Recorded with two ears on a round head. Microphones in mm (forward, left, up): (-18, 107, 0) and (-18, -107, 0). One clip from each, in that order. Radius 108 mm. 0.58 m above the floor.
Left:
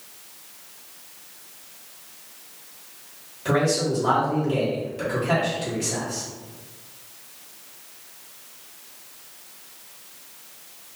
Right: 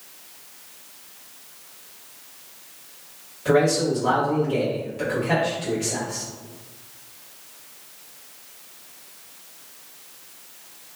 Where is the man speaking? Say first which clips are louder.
Right 3 dB; 10° left (ahead or behind), 1.2 m.